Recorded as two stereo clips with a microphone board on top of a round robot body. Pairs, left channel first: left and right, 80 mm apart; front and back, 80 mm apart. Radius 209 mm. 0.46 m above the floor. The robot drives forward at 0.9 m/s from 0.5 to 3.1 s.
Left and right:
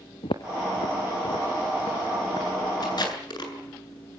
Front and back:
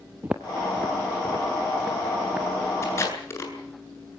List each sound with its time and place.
0.2 s footsteps: 115° left, 0.6 m; by 2.5 s 100° left, 2.5 m
2.8 s tape being pulled: 55° left, 8 m